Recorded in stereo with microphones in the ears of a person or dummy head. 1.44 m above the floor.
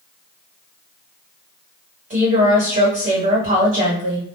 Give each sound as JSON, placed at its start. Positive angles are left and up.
{"t": 2.1, "sound": "a woman speaking", "side_deg": -35, "distance_m": 1.3}